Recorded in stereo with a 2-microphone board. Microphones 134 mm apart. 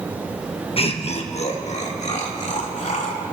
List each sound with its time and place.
0.8 s laughter: 45° left (ahead or behind), 1.2 m; by 3.2 s 65° left (ahead or behind), 3 m